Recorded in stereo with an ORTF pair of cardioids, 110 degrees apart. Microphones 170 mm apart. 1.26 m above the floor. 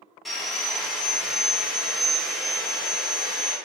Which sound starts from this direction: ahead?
Sawing, at 0.2 s.